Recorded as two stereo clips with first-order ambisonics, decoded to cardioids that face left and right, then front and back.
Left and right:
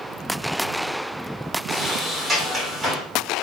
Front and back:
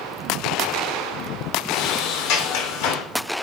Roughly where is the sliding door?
Ahead.